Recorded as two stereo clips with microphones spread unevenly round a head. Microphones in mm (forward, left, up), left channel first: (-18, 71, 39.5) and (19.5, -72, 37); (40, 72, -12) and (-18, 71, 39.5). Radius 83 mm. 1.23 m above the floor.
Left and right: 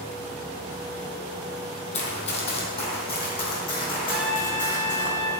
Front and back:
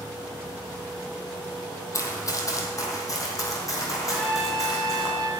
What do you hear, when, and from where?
1.9 s running footsteps: 65° left, 2.0 m; by 5.1 s 45° left, 4 m
4.1 s a trumpet: 160° right, 1.2 m